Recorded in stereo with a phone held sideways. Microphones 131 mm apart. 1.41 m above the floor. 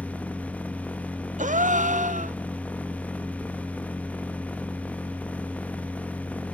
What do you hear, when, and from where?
0.0 s a machine running: 10° left (ahead or behind), 0.8 m
1.4 s a gasp: 75° right (ahead or behind), 0.7 m